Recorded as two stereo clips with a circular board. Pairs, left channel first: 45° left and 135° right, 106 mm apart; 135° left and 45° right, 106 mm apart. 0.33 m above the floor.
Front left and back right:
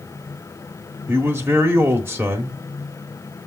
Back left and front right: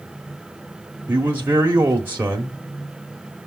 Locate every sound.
1.1 s a man speaking: 90° right, 1.2 m